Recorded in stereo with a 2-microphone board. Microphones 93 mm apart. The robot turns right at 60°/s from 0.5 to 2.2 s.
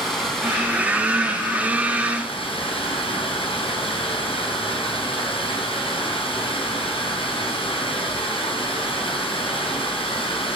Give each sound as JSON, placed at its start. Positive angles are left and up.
{"t": 0.0, "sound": "running water", "azimuth_deg": 0, "distance_m": 5.0}